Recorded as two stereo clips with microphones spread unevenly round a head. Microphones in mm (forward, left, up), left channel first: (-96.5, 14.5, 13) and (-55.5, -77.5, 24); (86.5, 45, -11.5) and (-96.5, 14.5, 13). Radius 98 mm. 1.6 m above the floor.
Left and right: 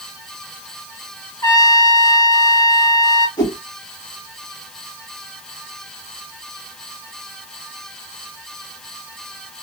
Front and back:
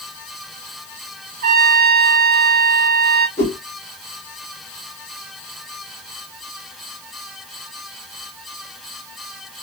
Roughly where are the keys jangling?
No keys jangling in this recording.